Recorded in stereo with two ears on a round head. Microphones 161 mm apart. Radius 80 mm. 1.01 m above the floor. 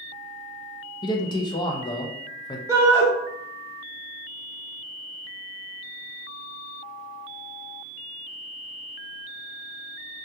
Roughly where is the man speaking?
Left.